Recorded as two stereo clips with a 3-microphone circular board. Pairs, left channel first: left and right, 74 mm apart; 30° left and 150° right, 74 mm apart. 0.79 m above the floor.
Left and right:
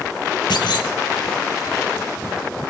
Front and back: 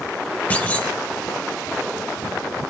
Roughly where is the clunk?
Left.